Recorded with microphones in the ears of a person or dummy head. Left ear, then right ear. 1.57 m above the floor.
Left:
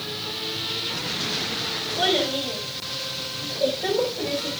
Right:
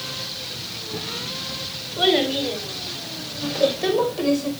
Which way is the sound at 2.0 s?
75° right (ahead or behind).